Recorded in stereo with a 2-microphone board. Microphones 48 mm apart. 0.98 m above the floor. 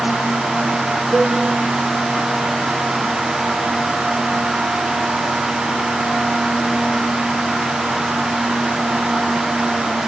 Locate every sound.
1.1 s a cowbell: 55° left (ahead or behind), 1.5 m